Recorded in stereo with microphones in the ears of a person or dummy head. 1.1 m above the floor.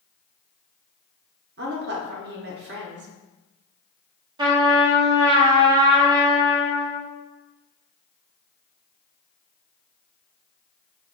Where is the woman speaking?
50° right (ahead or behind), 0.8 m.